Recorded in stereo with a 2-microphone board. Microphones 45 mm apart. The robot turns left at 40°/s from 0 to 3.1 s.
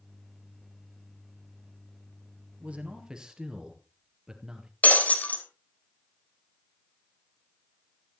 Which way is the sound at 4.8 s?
35° left (ahead or behind).